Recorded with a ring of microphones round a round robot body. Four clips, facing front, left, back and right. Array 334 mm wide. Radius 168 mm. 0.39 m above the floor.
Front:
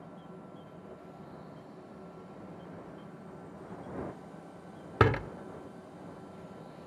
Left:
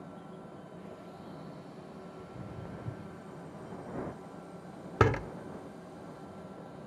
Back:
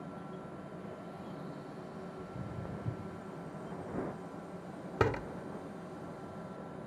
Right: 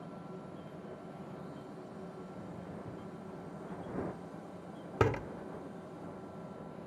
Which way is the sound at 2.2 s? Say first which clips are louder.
Left 1 dB, back 3 dB; 150° left.